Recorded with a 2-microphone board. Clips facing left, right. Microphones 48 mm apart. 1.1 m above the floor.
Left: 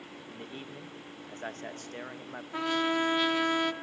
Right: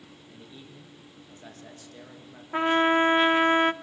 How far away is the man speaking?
About 1.5 m.